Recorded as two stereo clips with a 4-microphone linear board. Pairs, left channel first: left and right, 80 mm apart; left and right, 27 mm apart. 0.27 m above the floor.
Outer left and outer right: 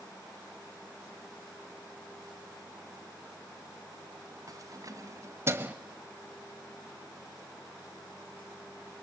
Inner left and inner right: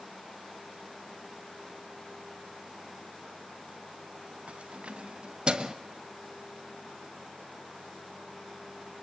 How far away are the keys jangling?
About 2 m.